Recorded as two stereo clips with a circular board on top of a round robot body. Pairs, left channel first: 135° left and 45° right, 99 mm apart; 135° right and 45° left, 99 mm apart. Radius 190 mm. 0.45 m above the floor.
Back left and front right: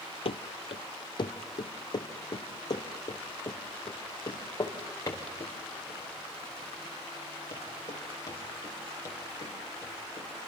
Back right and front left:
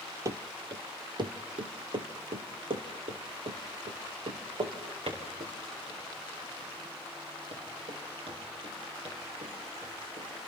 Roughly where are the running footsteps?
Left.